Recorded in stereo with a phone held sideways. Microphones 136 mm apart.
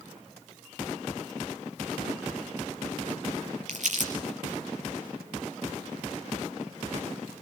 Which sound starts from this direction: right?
Crumpling, at 3.7 s.